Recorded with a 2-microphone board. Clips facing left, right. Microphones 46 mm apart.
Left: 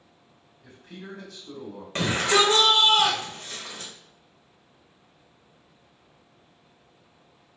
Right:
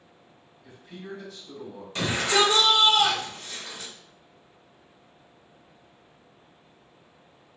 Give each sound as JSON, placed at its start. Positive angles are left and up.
{"t": 0.6, "sound": "a man speaking", "side_deg": 80, "distance_m": 1.4}
{"t": 1.9, "sound": "a shout", "side_deg": 50, "distance_m": 1.0}